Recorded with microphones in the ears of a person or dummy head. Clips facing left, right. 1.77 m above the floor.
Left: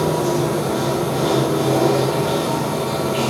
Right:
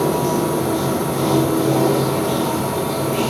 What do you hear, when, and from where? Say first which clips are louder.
0.0 s running water: even; 10° left (ahead or behind), 1.1 m